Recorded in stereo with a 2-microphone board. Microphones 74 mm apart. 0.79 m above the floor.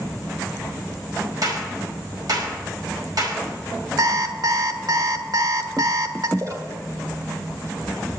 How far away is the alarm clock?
About 1.2 m.